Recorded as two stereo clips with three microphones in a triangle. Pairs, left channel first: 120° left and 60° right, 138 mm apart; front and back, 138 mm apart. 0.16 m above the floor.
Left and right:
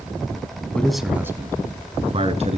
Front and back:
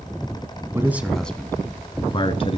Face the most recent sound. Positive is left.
turn(degrees=-35)